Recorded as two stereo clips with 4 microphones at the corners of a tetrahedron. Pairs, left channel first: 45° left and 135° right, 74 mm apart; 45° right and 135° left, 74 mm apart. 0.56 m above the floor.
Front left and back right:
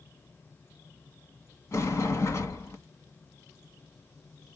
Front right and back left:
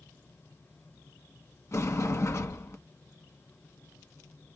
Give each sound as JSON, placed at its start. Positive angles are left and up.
{"t": 1.7, "sound": "a sliding door", "azimuth_deg": 0, "distance_m": 1.2}